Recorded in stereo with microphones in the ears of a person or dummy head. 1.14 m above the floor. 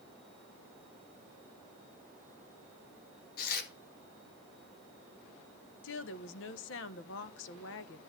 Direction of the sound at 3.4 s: 55° left (ahead or behind).